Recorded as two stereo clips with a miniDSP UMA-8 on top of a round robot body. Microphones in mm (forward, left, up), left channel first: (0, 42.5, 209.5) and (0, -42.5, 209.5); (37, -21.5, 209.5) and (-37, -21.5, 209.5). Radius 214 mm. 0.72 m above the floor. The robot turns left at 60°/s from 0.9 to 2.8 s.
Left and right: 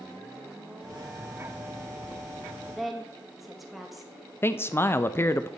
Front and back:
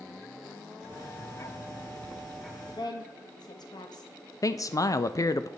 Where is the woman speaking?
5° left, 1.2 m; by 4.1 s straight ahead, 1.2 m.